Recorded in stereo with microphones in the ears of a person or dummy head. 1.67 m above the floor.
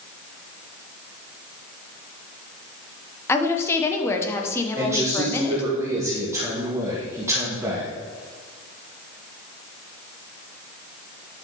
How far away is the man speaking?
About 1.7 m.